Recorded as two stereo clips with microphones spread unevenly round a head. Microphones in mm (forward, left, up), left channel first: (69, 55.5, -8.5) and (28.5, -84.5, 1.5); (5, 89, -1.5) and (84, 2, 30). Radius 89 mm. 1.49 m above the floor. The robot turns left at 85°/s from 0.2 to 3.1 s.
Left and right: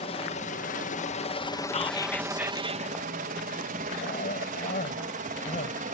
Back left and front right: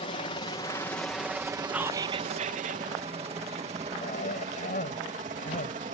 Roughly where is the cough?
Behind left.